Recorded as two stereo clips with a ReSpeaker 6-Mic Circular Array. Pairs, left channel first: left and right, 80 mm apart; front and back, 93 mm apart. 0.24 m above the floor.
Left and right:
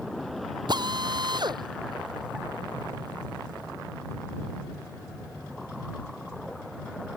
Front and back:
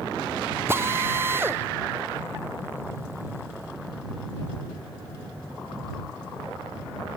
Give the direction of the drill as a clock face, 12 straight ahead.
4 o'clock.